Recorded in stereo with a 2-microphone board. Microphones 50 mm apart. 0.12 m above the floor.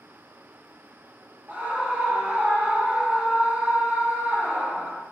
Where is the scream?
35° right (ahead or behind), 1.7 m.